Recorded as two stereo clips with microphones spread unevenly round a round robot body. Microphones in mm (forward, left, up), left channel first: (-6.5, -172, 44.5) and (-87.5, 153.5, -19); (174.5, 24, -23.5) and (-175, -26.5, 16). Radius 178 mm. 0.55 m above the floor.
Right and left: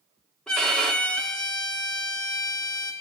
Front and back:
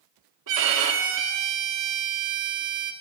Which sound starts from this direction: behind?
A violin, at 0.5 s.